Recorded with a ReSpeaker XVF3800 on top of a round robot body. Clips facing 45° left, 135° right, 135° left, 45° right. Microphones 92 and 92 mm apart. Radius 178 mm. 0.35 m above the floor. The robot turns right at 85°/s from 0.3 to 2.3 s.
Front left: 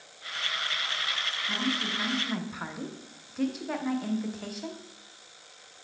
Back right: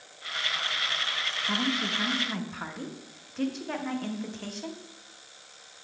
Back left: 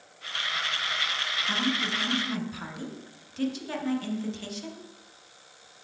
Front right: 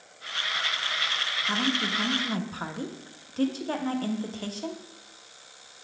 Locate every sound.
1.5 s a woman speaking: 110° right, 1.1 m; by 4.8 s 40° right, 1.1 m